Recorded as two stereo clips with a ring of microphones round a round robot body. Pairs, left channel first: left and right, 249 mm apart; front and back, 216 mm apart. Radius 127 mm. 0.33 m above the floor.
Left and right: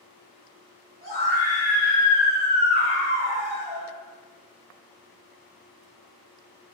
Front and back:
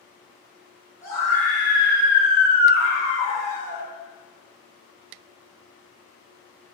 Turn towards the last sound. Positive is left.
turn(degrees=-155)